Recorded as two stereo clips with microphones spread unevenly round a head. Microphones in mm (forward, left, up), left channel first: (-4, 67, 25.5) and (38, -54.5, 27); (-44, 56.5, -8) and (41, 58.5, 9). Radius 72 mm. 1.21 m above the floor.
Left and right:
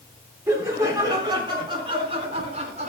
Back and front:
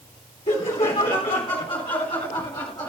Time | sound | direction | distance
0.5 | laughter | 145° right | 3.5 m